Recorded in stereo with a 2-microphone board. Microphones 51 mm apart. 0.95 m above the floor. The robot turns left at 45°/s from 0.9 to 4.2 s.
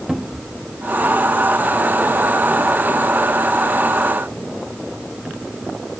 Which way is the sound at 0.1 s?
10° right (ahead or behind).